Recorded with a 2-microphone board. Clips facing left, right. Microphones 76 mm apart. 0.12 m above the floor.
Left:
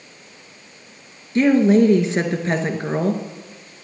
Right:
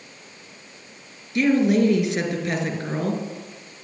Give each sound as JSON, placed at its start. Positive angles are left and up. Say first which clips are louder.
{"t": 1.4, "sound": "a woman speaking", "louder": "left 4 dB", "side_deg": 30, "distance_m": 1.9}